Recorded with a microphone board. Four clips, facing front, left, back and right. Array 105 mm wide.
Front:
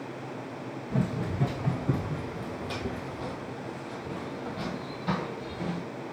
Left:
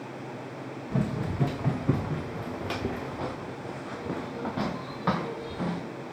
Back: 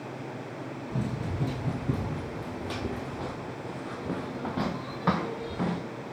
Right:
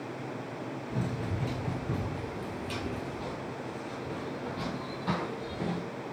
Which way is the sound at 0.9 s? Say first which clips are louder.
Left 6 dB, front 4 dB; 65° left.